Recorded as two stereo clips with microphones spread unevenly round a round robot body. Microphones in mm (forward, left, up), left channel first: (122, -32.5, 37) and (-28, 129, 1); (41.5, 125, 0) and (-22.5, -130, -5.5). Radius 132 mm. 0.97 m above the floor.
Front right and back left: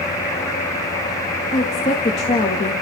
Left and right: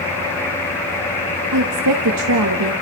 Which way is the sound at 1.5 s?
115° right.